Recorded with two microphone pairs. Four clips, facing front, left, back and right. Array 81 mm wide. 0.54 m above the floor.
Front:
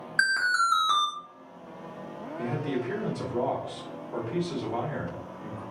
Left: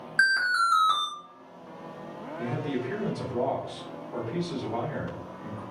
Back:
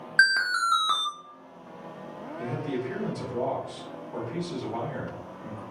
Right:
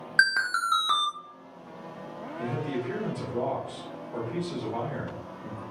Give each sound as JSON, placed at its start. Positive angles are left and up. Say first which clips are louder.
{"t": 0.2, "sound": "an alarm", "louder": "left 1 dB, back 2 dB", "azimuth_deg": -110, "distance_m": 0.6}
{"t": 2.4, "sound": "a man speaking", "louder": "even, front 1 dB", "azimuth_deg": 0, "distance_m": 1.2}